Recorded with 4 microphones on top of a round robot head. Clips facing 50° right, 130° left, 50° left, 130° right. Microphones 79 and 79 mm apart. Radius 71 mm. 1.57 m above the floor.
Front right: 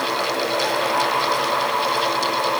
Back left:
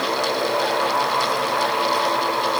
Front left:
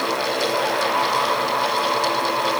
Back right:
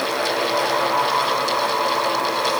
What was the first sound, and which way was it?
Only background noise.